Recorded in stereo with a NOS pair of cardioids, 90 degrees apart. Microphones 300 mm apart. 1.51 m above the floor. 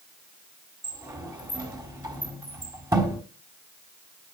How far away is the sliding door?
About 4 m.